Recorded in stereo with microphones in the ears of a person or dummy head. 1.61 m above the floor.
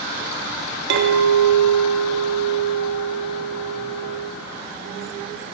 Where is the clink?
60° right (ahead or behind), 0.9 m.